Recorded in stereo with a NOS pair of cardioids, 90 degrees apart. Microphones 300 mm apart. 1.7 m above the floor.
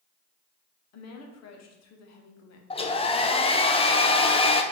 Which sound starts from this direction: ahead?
A hair dryer, at 2.7 s.